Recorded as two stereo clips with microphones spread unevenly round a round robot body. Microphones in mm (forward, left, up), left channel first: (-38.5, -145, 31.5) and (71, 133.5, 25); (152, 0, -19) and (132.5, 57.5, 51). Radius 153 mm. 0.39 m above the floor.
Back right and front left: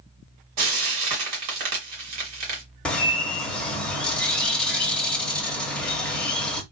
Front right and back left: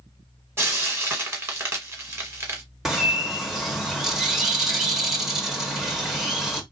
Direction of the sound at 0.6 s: 50° left.